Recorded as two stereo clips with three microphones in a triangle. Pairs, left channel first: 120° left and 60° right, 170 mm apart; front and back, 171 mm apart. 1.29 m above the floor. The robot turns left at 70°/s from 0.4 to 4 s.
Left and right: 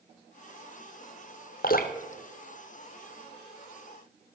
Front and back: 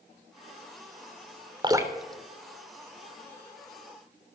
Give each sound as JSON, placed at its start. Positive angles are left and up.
{"t": 1.6, "sound": "dripping", "azimuth_deg": 125, "distance_m": 1.4}